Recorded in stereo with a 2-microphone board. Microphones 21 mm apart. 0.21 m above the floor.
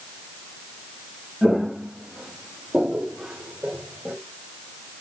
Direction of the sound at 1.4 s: 15° left (ahead or behind).